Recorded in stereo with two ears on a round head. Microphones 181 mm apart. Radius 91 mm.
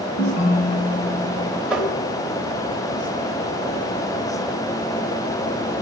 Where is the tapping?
5° right (ahead or behind), 1.9 m.